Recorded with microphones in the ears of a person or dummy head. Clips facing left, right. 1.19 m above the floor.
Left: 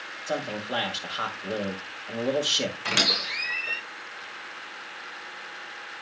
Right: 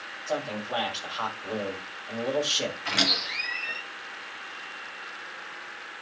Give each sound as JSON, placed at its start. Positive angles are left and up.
{"t": 0.3, "sound": "a man speaking", "side_deg": 25, "distance_m": 1.8}
{"t": 2.9, "sound": "a squeak", "side_deg": 75, "distance_m": 5.5}